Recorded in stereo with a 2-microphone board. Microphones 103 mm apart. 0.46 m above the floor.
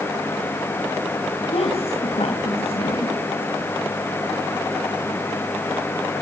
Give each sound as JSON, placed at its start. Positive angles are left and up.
{"t": 1.5, "sound": "a woman speaking", "side_deg": 70, "distance_m": 2.5}